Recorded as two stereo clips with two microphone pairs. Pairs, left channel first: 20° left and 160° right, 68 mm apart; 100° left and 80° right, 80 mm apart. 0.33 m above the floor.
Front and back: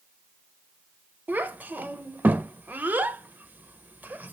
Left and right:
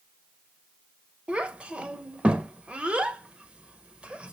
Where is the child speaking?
140° right, 0.5 m.